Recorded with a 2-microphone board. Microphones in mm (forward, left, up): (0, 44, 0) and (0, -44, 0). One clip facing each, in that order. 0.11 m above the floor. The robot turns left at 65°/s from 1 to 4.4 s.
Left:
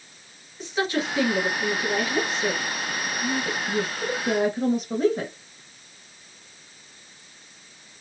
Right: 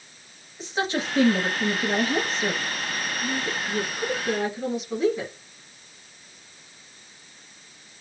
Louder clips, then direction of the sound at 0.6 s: Left 1 dB; 30° right (ahead or behind).